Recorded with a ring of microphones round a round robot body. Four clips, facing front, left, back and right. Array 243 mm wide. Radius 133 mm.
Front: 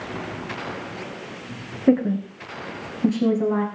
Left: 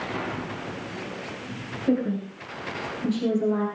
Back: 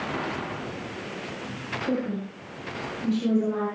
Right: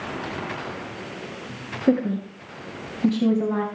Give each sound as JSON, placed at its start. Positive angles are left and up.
{"t": 1.9, "sound": "a woman speaking", "azimuth_deg": -35, "distance_m": 3.5}